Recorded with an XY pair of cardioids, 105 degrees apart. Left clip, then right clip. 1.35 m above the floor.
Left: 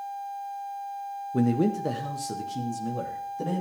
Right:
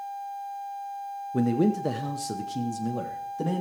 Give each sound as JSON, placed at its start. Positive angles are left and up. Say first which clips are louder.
{"t": 1.3, "sound": "a man speaking", "louder": "even", "azimuth_deg": 0, "distance_m": 0.6}